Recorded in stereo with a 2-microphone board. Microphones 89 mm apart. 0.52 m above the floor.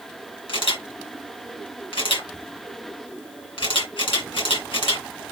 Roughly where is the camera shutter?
Left.